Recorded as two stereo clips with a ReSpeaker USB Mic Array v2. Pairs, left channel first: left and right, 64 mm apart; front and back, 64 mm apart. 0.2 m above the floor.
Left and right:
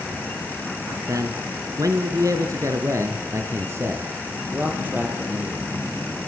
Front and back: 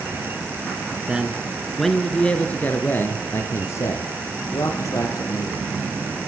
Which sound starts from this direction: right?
A man speaking, at 1.1 s.